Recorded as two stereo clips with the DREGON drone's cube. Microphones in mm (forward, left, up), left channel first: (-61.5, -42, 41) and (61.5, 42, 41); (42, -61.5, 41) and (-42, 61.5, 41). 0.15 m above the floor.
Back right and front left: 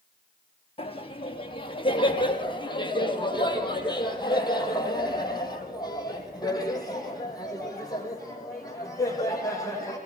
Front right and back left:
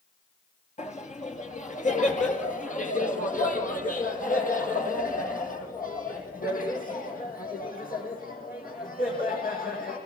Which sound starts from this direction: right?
Laughter, at 0.8 s.